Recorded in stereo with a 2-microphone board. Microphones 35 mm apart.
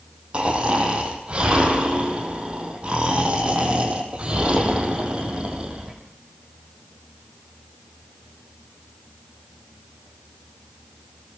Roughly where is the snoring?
Right.